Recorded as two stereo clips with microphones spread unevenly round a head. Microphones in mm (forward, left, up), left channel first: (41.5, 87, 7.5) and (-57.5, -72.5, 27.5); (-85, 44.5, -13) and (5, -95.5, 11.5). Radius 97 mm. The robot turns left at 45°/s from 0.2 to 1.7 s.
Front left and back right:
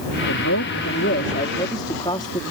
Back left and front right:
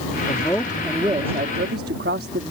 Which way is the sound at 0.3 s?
50° left.